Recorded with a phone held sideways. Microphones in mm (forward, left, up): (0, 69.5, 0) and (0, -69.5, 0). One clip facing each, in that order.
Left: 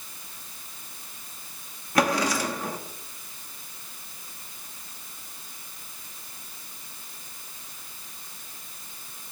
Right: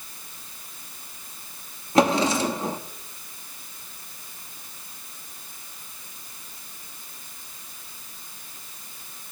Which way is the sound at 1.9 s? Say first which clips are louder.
Right 4 dB; 25° right (ahead or behind).